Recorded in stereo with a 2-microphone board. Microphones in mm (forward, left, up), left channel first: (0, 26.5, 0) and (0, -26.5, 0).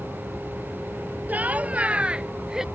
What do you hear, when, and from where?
1.3 s laughter: 30° right (ahead or behind); by 2.6 s 10° right (ahead or behind)